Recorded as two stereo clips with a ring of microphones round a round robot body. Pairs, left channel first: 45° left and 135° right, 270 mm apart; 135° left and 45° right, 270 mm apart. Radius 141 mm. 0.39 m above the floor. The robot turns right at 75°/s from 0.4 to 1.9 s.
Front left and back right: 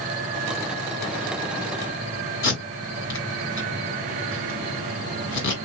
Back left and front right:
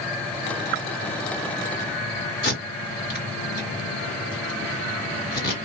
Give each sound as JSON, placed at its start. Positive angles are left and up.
{"t": 2.4, "sound": "tape being pulled", "azimuth_deg": 80, "distance_m": 2.5}